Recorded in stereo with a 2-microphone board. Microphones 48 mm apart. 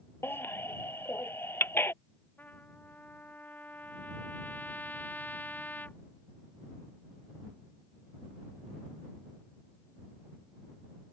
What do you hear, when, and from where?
0.2 s a baby crying: 55° left (ahead or behind)
2.4 s a trumpet: 35° left (ahead or behind)